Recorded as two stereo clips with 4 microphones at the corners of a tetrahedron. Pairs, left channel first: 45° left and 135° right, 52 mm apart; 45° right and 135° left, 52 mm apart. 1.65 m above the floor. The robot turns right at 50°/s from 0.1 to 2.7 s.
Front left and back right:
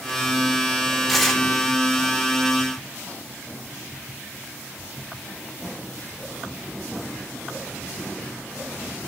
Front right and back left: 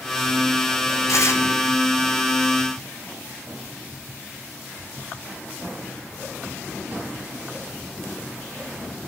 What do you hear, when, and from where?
1.1 s tearing paper: 50° right, 3.5 m; by 1.4 s 30° right, 3.5 m